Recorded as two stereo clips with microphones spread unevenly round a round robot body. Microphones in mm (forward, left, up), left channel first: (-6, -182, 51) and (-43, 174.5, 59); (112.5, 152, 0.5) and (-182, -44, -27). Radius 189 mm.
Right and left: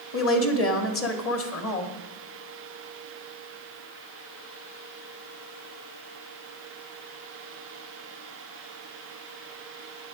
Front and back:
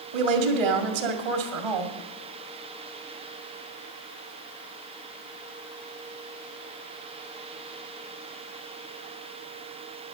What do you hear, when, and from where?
0.1 s a woman speaking: 140° right, 2.0 m